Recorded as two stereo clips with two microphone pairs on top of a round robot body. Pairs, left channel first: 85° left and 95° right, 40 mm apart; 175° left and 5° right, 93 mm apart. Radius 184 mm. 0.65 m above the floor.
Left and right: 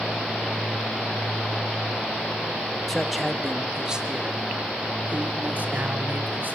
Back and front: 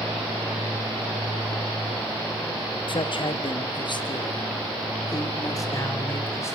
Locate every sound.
2.9 s a man speaking: 170° left, 1.8 m; by 6.6 s 125° right, 3 m